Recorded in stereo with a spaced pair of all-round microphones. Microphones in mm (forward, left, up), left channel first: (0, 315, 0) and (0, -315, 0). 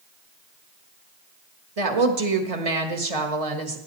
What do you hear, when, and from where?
1.8 s a woman speaking: 70° right (ahead or behind), 1.7 m